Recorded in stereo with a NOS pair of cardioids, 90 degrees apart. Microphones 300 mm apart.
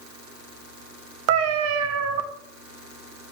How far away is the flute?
I don't hear a flute.